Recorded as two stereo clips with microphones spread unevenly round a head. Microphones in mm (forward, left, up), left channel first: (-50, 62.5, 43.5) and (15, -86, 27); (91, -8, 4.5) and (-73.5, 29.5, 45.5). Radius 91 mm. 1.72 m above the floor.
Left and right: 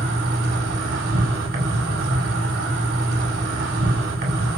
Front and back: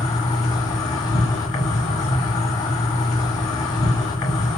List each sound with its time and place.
0.0 s an insect: 85° right, 1.7 m